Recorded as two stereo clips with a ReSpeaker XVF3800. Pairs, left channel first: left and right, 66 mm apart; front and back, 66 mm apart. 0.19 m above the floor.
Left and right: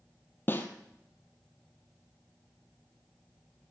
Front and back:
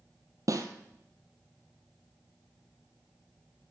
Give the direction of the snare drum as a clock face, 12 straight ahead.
7 o'clock.